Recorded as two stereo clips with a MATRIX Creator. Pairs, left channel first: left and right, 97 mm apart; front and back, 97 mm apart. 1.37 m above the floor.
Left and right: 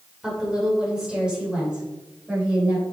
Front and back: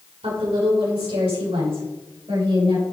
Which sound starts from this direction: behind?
A woman speaking, at 0.2 s.